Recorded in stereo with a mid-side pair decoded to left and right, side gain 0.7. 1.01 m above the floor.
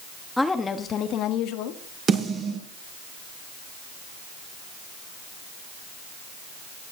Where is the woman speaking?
5° left, 1.2 m; by 2.0 s 75° left, 2 m.